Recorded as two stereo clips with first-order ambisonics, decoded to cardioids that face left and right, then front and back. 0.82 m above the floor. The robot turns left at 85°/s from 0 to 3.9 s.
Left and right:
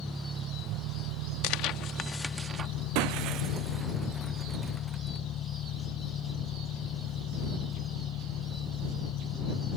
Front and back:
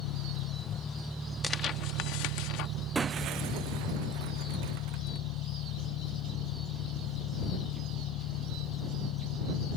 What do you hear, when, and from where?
0.0 s an engine running: 5° left; by 9.8 s 35° left
1.4 s tearing paper: 75° left; by 2.7 s 35° right
3.0 s breaking glass: 100° right; by 5.2 s straight behind